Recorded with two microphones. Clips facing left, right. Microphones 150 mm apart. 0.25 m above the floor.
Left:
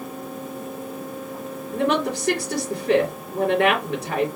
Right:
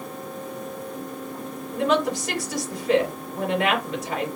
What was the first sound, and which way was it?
A woman speaking, 70° left (ahead or behind).